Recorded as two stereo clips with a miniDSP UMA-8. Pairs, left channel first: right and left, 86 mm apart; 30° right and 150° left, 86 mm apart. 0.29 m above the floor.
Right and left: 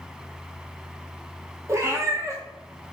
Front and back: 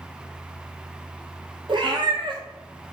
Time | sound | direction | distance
1.7 | a cat meowing | 140° left | 0.9 m